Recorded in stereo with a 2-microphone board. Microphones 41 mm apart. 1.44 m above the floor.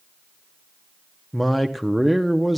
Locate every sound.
1.3 s a man speaking: centre (ahead or behind), 0.7 m